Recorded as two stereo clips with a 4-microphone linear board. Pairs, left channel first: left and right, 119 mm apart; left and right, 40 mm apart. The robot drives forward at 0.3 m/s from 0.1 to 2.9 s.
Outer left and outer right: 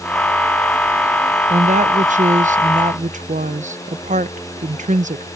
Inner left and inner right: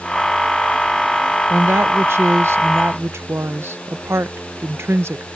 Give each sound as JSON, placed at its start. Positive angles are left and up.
{"t": 1.5, "sound": "a woman speaking", "side_deg": -75}